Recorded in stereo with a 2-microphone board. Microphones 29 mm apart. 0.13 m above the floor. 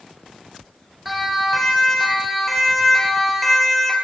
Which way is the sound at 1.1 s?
5° right (ahead or behind).